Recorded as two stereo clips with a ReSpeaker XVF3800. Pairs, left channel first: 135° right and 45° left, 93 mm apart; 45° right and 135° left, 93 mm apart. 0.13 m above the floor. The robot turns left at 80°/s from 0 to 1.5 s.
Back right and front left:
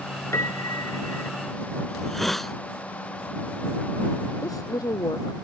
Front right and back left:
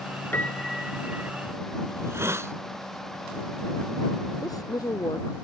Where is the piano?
100° right; by 1.3 s 175° right.